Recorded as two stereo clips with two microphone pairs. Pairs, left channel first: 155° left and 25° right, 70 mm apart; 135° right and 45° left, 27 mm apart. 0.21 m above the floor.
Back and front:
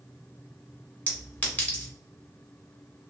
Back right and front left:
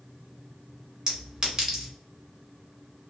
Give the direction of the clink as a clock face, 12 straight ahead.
9 o'clock.